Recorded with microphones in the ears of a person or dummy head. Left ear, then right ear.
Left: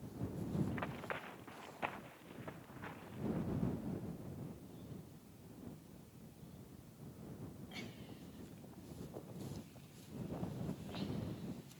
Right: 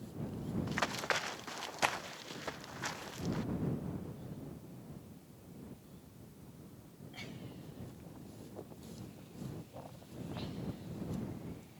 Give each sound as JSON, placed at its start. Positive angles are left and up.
{"t": 0.7, "sound": "running footsteps", "side_deg": -80}